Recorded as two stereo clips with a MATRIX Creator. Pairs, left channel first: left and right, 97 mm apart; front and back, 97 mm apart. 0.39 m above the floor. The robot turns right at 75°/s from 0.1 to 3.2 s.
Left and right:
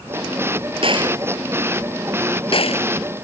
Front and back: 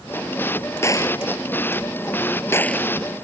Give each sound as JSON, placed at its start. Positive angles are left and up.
{"t": 0.8, "sound": "a gunshot", "azimuth_deg": -65}